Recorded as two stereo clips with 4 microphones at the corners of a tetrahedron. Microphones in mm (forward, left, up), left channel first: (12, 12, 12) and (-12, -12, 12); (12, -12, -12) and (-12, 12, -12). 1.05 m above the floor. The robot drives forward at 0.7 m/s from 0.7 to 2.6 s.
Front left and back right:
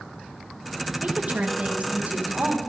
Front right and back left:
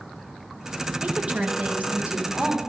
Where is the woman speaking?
175° right, 0.9 m; by 2.6 s straight behind, 2.0 m.